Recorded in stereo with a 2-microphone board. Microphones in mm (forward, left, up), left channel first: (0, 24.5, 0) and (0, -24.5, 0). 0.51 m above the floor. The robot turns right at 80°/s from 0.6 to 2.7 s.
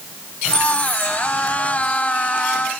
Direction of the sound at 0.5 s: 20° left.